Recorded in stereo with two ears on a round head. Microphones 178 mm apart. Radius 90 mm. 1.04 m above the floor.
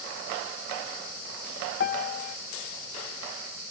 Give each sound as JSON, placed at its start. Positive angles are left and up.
{"t": 1.8, "sound": "a piano", "side_deg": 50, "distance_m": 0.7}